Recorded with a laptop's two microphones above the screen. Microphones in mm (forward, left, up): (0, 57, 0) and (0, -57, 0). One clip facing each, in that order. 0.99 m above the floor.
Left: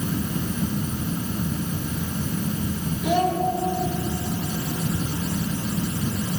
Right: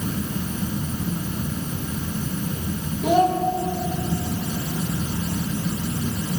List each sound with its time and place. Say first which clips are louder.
3.0 s a child speaking: right 4 dB; 45° right (ahead or behind), 3 m